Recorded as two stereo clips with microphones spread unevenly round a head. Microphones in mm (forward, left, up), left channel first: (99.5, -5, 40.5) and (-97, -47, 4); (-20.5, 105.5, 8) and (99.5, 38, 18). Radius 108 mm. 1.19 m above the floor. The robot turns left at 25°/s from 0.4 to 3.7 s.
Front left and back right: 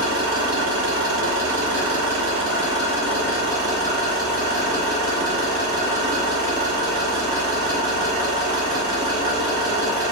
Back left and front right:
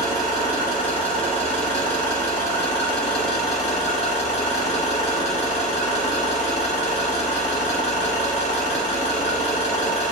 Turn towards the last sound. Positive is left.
turn(degrees=140)